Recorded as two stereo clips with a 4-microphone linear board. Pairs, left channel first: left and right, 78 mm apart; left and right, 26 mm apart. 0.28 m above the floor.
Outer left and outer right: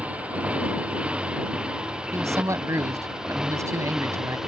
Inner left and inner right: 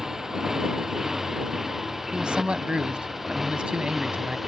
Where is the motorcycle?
15° right (ahead or behind); by 4.5 s 5° right (ahead or behind).